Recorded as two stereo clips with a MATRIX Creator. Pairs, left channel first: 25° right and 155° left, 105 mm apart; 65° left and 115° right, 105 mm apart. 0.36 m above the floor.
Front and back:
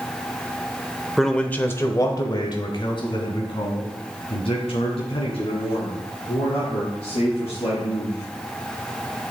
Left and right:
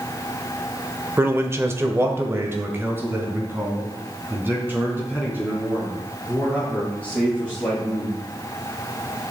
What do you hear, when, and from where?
1.2 s a man speaking: 115° right, 0.9 m; by 8.1 s 40° right, 6 m